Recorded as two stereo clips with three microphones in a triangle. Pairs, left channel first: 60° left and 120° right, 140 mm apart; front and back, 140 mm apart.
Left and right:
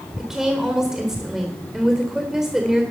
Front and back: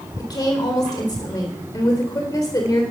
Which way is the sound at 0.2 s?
35° right.